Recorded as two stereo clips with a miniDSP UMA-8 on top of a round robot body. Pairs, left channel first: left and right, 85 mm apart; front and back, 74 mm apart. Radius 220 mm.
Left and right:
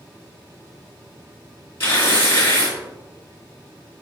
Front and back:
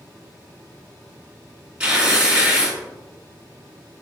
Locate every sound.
1.8 s tearing paper: 110° left, 1.8 m